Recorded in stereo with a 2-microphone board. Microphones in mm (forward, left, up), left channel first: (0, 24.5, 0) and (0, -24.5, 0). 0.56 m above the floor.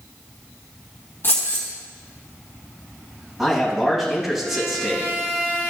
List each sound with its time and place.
1.2 s keys jangling: 50° left (ahead or behind), 3 m
3.4 s a man speaking: centre (ahead or behind), 3 m